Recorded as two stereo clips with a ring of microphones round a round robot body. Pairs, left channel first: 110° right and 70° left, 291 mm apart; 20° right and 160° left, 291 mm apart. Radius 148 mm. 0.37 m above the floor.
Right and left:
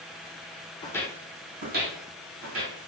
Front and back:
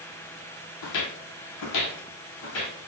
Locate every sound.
0.8 s footsteps: 45° right, 0.5 m; by 2.9 s 25° left, 1.6 m